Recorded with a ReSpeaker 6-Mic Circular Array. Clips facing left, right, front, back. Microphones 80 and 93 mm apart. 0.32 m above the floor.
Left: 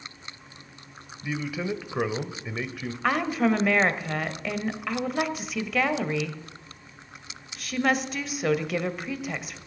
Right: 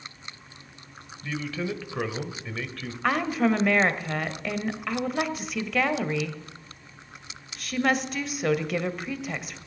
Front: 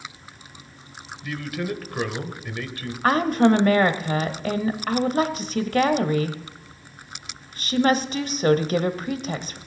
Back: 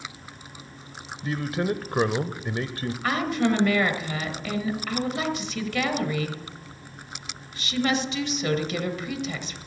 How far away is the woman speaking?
About 1.1 m.